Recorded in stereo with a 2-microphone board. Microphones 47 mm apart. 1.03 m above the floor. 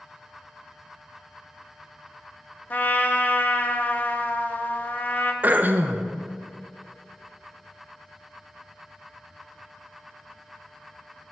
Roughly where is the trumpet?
Left.